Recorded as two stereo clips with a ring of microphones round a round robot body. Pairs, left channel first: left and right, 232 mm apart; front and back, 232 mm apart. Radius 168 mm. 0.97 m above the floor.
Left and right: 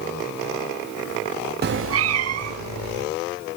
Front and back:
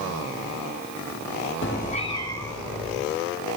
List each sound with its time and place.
1.6 s a cat meowing: 50° right, 0.5 m; by 3.0 s 90° right, 1.8 m